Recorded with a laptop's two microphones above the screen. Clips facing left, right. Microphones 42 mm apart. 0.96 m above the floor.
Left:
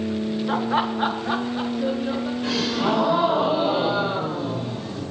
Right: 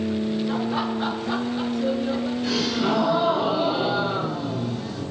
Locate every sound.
0.5 s laughter: 45° left (ahead or behind), 1.1 m; by 2.3 s 10° left (ahead or behind), 1.7 m
2.4 s a gasp: 45° left (ahead or behind), 4 m